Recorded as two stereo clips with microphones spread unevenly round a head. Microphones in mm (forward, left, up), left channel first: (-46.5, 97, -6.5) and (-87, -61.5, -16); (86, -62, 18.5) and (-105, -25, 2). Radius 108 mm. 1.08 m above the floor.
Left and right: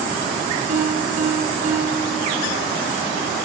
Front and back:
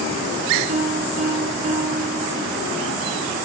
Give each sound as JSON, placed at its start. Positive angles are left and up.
{"t": 0.7, "sound": "a piano", "azimuth_deg": -140, "distance_m": 5.0}